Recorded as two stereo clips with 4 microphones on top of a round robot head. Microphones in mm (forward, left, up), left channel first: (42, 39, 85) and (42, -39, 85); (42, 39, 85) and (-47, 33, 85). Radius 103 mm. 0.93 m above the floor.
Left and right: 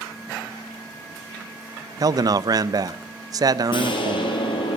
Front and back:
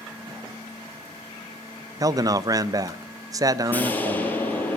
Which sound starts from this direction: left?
An explosion, at 3.7 s.